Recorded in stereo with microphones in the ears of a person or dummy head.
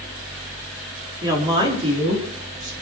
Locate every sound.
1.2 s a woman speaking: 25° right (ahead or behind), 4 m; by 2.7 s 40° right (ahead or behind), 3.5 m